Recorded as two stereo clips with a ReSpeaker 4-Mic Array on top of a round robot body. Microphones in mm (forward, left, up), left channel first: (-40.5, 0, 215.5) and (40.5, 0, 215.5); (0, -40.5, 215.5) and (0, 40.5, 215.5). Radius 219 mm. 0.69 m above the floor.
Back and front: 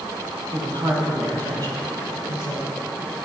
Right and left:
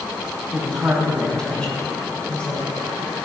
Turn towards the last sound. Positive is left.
turn(degrees=-15)